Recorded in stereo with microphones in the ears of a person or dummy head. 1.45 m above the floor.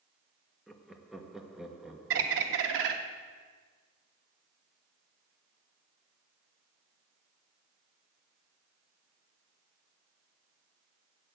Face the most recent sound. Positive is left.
turn(degrees=-60)  # may be behind; listen again after turning